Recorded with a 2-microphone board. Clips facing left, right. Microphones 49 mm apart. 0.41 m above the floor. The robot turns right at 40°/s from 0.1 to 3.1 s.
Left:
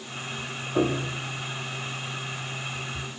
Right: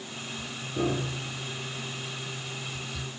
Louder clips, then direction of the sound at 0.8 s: Left 4 dB; 60° left (ahead or behind).